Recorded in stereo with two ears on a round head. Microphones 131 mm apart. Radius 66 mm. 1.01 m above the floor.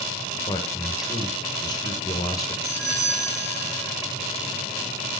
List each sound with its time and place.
0.5 s a man speaking: 25° left (ahead or behind), 0.9 m
2.6 s a doorbell: 60° right (ahead or behind), 3.5 m